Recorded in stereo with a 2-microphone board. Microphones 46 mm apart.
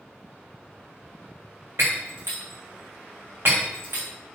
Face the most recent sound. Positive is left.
turn(degrees=-65)  # may be behind; listen again after turning